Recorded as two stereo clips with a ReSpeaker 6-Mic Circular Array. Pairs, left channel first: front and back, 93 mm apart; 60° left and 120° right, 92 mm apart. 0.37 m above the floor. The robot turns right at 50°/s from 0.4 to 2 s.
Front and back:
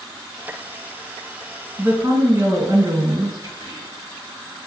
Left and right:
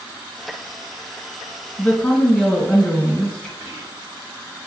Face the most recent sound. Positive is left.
turn(degrees=-75)